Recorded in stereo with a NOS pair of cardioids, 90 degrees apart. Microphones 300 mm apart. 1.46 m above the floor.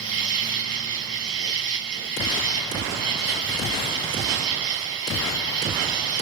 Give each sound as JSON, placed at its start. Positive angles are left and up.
{"t": 0.0, "sound": "an insect", "azimuth_deg": -60, "distance_m": 1.8}